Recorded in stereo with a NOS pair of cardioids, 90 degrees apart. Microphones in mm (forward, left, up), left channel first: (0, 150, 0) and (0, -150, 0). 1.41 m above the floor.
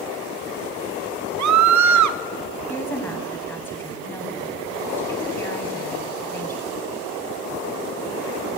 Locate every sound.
1.4 s a scream: 70° right, 1.3 m
2.7 s a woman speaking: 5° left, 8.5 m